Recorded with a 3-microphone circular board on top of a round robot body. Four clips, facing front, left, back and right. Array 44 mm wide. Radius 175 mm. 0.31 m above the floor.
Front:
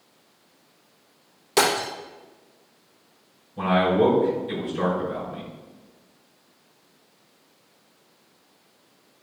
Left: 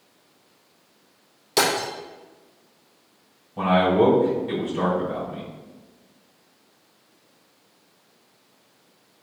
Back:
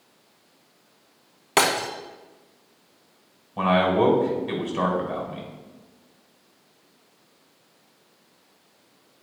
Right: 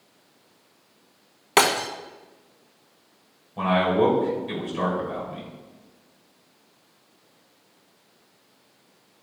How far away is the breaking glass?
About 0.7 m.